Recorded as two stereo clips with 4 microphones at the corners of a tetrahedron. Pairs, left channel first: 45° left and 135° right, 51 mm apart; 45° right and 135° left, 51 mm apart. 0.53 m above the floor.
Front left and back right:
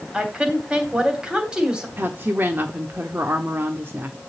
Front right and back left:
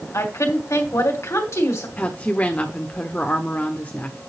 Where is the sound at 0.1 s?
65° right, 2.5 m.